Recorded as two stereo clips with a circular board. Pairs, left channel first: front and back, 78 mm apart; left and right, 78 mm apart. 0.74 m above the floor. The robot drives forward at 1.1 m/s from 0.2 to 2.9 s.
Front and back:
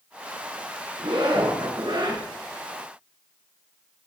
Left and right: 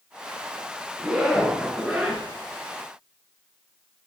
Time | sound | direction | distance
1.0 | a zipper | 175° right | 3.5 m